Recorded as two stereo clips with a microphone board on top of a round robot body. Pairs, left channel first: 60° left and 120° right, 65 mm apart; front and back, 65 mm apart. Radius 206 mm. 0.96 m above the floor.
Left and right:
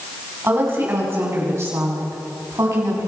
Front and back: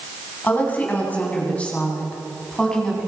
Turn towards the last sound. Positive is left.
turn(degrees=-80)